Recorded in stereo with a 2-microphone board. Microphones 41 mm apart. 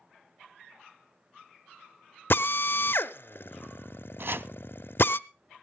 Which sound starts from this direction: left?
A drill, at 2.3 s.